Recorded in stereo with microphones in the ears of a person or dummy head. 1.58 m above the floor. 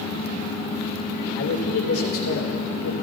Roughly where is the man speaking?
Left.